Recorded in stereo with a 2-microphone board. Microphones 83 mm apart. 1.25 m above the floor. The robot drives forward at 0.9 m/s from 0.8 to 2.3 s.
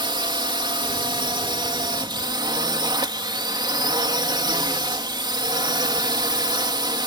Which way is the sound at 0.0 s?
70° right (ahead or behind).